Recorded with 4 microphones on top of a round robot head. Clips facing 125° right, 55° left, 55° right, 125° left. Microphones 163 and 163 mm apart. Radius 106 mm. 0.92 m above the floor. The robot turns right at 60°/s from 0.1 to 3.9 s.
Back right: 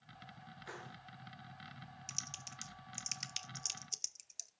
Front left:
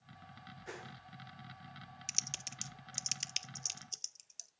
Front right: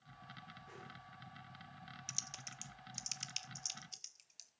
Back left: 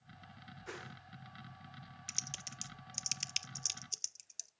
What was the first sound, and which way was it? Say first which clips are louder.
A whoosh: front left 3 dB, back left 9 dB; 125° left.